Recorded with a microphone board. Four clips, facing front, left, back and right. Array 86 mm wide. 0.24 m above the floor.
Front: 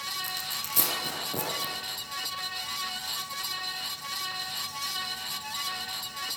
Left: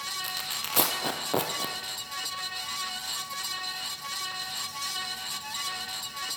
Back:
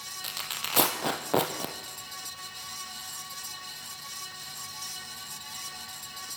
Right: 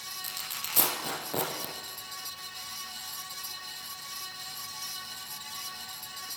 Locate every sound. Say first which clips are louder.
0.2 s tearing paper: left 5 dB, front 1 dB; 150° left, 4 m